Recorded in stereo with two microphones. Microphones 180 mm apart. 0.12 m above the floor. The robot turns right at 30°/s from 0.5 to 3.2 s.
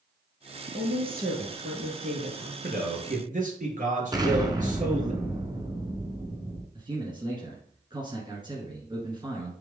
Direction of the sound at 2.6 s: 50° right (ahead or behind).